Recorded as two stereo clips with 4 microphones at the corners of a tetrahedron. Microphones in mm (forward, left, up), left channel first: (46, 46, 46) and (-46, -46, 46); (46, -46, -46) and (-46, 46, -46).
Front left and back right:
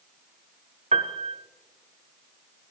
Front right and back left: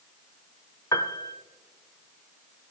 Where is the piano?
110° right, 0.8 m.